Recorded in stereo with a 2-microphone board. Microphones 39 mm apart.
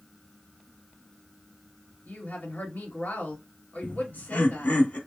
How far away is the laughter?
About 2 m.